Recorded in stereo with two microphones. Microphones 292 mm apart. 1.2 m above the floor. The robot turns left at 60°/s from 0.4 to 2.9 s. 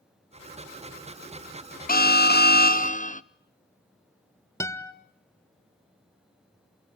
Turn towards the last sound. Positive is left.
turn(degrees=10)  # may be behind; listen again after turning